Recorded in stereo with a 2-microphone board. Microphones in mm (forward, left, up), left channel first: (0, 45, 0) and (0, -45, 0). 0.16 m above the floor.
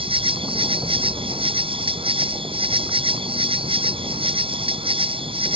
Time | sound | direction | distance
0.0 | an insect | 75° right (ahead or behind) | ?